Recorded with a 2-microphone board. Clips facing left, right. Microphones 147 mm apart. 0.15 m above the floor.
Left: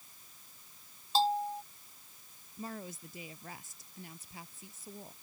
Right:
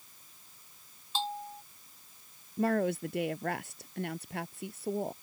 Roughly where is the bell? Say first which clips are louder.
Left 7 dB; left.